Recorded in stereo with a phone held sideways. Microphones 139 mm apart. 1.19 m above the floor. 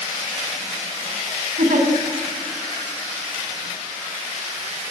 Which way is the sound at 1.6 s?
85° right.